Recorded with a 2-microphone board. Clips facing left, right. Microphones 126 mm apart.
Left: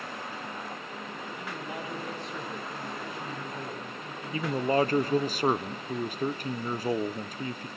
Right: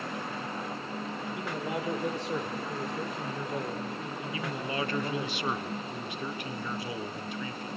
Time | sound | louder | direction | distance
1.4 | a man speaking | right 5 dB | 90° right | 7.5 m
4.3 | a man speaking | left 10 dB | 40° left (ahead or behind) | 1.2 m